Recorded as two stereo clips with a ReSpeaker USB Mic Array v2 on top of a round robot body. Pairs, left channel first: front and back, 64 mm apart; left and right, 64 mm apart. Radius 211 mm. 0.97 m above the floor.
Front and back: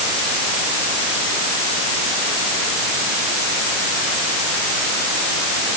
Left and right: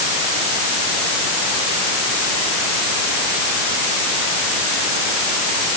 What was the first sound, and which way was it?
Only background noise.